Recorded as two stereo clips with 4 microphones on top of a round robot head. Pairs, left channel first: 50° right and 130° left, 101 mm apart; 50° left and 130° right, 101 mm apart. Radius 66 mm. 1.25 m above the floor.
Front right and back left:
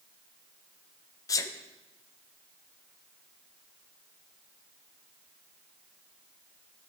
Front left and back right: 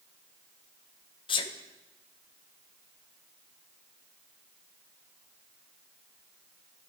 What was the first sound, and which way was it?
A sneeze, 10° left.